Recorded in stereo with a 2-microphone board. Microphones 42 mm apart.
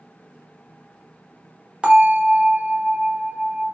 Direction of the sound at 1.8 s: 25° right (ahead or behind).